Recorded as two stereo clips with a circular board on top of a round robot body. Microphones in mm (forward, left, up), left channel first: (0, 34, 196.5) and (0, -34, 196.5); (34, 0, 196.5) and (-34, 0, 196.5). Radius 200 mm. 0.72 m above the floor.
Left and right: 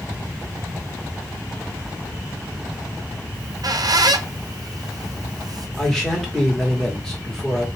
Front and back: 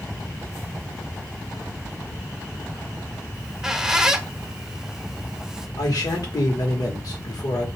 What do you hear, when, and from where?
3.3 s a squeak: 100° right, 0.5 m
5.8 s a man speaking: 10° left, 1.2 m